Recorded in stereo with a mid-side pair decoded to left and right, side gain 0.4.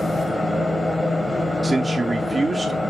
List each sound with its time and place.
0.0 s a fan: 10° left, 1.1 m
1.6 s a man speaking: 20° right, 0.7 m